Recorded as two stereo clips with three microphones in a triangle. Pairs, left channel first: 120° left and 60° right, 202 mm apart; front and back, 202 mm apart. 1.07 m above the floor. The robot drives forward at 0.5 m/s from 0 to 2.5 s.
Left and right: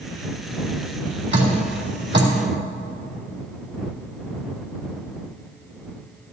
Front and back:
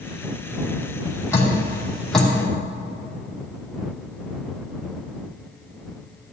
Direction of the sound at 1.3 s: 75° right.